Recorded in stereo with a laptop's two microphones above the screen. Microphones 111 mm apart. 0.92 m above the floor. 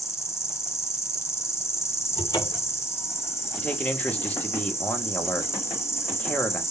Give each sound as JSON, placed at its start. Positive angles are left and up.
{"t": 0.0, "sound": "an insect", "side_deg": 25, "distance_m": 1.2}
{"t": 2.2, "sound": "a cupboard door", "side_deg": 35, "distance_m": 1.0}
{"t": 3.6, "sound": "a man speaking", "side_deg": 15, "distance_m": 1.1}